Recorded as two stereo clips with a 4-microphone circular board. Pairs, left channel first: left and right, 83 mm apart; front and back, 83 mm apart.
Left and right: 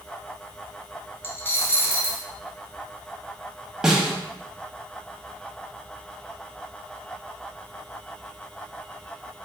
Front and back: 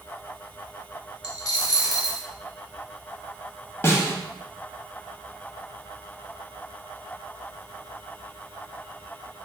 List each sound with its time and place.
1.2 s a dropped coin: 30° left, 0.5 m
3.8 s a snare drum: 15° right, 0.5 m